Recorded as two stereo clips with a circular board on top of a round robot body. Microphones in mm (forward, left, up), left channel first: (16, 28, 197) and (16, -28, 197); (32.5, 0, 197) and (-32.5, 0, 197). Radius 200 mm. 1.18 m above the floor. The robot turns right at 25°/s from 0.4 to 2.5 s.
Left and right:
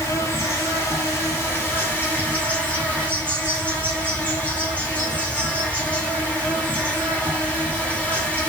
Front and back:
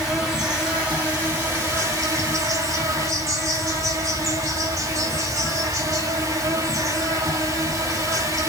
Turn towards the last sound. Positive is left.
turn(degrees=150)